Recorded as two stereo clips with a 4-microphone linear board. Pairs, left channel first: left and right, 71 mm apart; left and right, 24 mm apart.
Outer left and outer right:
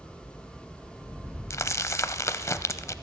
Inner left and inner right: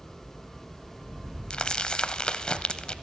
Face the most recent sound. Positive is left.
turn(degrees=45)  # may be behind; listen again after turning